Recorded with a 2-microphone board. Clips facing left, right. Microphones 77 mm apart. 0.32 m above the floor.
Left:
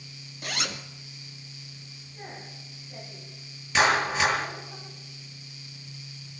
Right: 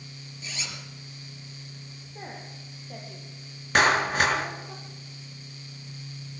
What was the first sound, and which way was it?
A zipper, 60° left (ahead or behind).